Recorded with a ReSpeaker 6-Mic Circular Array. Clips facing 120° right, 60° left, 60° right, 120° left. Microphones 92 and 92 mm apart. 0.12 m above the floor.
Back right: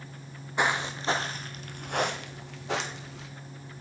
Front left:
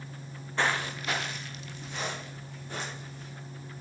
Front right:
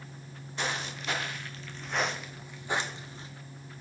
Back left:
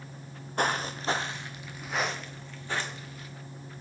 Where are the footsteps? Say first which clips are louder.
Back right 2 dB, back left 6 dB; 165° left, 1.5 m; by 3.3 s 125° right, 2.0 m.